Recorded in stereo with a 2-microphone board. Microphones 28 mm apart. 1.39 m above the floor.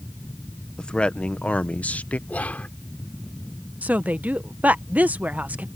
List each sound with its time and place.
0.8 s a man speaking: 30° left (ahead or behind); by 2.2 s 70° left (ahead or behind)
2.3 s whispering: 75° left (ahead or behind)
3.8 s a woman speaking: 75° right (ahead or behind)